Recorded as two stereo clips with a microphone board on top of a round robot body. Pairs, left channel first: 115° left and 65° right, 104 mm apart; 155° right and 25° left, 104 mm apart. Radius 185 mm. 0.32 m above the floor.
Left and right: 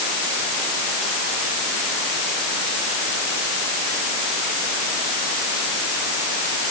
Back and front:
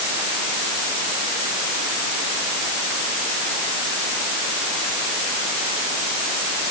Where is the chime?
No chime in this recording.